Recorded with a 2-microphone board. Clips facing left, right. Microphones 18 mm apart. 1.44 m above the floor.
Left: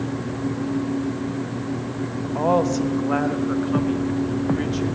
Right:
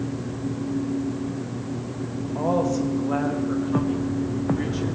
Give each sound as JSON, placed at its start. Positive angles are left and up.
{"t": 2.4, "sound": "a woman speaking", "side_deg": 35, "distance_m": 1.5}